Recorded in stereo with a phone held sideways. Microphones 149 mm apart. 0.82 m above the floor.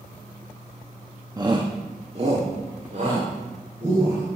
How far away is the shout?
About 0.9 m.